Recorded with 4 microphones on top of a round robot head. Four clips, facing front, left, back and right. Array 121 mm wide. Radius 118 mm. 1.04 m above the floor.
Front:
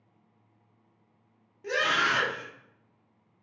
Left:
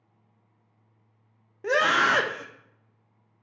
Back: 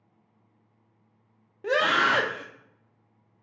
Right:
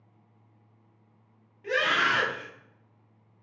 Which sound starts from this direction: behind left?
A scream, at 1.6 s.